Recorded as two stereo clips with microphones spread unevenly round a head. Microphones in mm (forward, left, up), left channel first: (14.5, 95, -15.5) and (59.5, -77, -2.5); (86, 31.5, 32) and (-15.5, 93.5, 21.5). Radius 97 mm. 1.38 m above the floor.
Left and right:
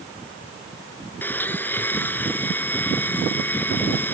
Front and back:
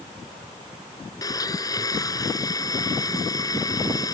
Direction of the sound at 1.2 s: 25° left.